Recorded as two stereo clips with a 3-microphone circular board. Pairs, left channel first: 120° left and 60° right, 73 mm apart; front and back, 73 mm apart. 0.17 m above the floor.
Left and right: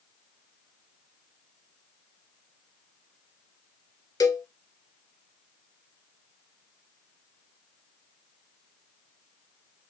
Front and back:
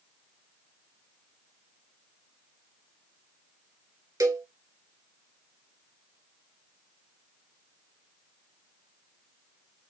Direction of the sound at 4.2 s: 145° left.